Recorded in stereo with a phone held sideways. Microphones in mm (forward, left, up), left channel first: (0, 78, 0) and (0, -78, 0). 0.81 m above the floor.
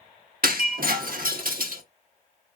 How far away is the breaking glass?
About 1.1 m.